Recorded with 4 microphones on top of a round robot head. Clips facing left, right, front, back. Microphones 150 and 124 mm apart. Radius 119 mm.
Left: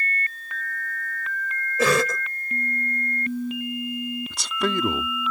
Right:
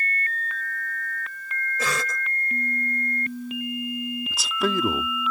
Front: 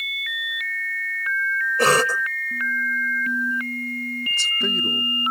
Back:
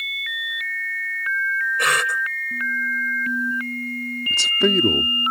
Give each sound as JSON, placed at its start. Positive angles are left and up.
{"t": 1.8, "sound": "a cough", "azimuth_deg": 55}
{"t": 4.3, "sound": "a man speaking", "azimuth_deg": 180}